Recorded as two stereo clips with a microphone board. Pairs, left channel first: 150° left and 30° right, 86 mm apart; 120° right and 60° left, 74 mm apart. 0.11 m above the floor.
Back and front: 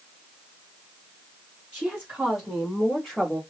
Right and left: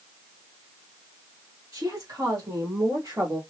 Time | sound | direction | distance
1.7 | a woman speaking | 40° left | 2.5 m